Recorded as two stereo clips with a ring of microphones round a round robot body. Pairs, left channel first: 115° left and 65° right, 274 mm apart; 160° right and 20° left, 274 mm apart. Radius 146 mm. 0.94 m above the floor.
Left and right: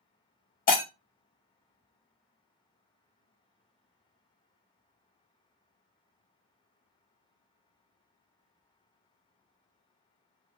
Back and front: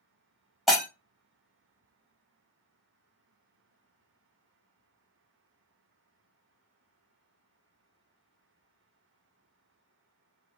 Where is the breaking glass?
110° left, 0.8 m.